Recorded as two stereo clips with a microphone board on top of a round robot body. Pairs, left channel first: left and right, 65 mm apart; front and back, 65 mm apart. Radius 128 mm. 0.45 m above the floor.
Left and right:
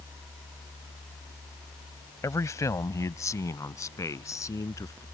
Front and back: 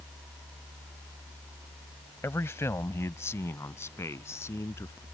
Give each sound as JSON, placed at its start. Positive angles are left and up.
{"t": 2.2, "sound": "a man speaking", "azimuth_deg": 50}